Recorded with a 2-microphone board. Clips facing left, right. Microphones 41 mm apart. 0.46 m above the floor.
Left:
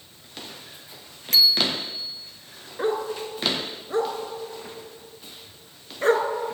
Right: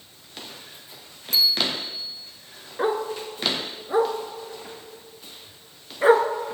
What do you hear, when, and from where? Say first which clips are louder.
1.3 s a bicycle bell: left 2 dB; 75° left (ahead or behind), 2.5 m
2.8 s a dog barking: right 1 dB; 15° right (ahead or behind), 1.8 m